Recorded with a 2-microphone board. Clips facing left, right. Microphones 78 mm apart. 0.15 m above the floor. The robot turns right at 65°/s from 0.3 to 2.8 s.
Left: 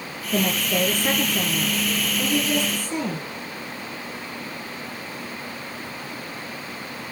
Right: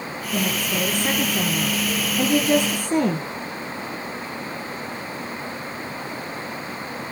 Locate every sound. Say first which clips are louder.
0.3 s a woman speaking: left 2 dB; 125° left, 2.5 m; by 3.2 s 75° right, 2.5 m